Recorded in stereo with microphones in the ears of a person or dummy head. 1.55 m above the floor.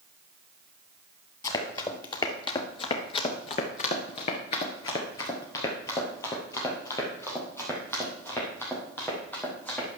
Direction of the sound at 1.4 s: 20° left (ahead or behind).